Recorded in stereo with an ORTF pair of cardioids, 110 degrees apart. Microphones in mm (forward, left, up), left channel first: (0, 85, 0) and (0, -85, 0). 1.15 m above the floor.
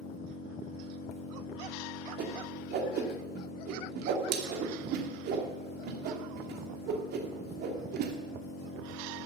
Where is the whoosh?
70° right, 2.5 m.